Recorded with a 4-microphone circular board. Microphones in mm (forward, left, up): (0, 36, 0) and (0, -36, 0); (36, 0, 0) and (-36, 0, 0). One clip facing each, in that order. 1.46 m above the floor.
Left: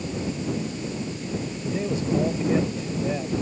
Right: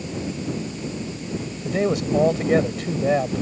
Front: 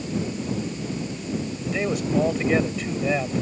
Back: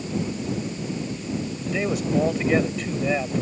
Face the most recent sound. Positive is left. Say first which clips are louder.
# right 5 dB, even
turn(degrees=-90)